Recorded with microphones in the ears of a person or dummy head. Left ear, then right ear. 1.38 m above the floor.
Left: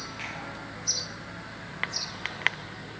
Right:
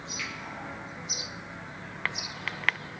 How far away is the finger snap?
About 6.5 m.